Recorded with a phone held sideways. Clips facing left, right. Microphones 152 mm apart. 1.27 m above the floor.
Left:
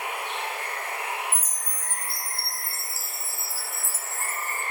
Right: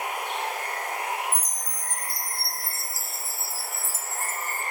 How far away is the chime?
About 0.9 m.